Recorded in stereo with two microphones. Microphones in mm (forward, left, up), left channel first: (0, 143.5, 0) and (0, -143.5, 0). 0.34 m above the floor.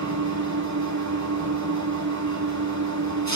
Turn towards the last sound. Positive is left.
turn(degrees=-70)  # may be behind; listen again after turning